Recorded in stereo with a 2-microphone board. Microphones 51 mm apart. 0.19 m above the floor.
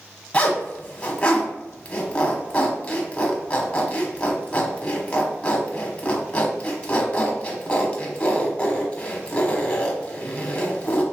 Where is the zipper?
20° left (ahead or behind), 1.3 m.